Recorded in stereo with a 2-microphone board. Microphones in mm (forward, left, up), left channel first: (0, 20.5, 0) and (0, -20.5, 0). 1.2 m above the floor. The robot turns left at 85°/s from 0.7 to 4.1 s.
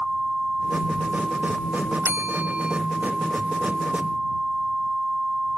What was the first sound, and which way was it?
A bell, 95° right.